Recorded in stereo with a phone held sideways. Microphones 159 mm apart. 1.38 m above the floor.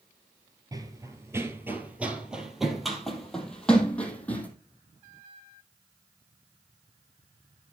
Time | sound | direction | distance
0.7 | running footsteps | 25° right (ahead or behind) | 1.4 m